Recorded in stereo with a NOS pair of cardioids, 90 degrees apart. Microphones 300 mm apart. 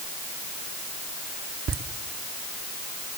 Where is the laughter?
50° right, 2.5 m.